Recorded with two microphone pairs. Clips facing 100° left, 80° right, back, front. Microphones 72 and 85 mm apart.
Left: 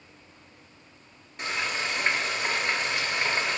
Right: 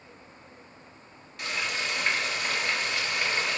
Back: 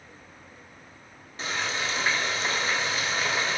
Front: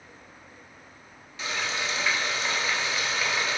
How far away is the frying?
About 0.5 m.